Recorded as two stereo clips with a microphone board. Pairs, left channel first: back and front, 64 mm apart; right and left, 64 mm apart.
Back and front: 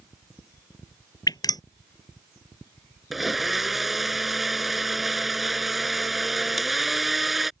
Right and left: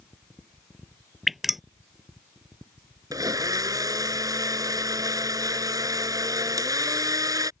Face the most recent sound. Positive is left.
turn(degrees=85)